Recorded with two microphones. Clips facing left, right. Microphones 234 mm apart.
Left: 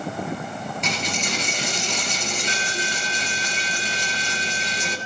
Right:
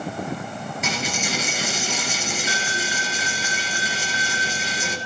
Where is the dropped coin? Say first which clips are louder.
Right 2 dB; 5° right (ahead or behind), 1.7 m.